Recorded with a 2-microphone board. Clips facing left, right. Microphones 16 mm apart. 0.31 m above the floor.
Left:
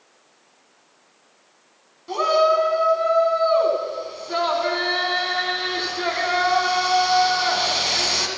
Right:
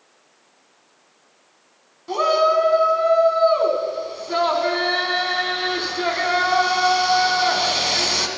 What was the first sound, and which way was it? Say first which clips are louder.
A shout: even; centre (ahead or behind).